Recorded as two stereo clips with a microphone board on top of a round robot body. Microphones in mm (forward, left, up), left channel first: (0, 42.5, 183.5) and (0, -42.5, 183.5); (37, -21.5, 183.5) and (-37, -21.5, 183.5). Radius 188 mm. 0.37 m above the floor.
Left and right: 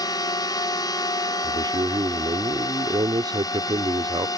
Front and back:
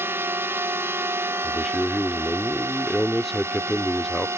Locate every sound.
0.0 s a drone: 125° left; by 4.4 s 130° left
1.4 s a man speaking: 90° right